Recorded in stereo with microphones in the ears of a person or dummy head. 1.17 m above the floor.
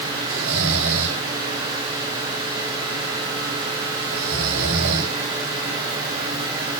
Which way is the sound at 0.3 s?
80° right.